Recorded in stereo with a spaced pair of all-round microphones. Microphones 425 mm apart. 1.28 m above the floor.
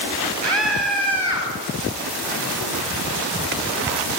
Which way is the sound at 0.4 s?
75° right (ahead or behind).